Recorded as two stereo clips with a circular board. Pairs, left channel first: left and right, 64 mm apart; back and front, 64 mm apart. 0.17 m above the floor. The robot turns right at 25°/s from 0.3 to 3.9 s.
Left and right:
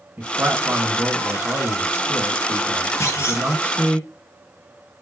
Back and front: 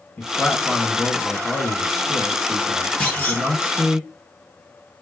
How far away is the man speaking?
About 1.4 m.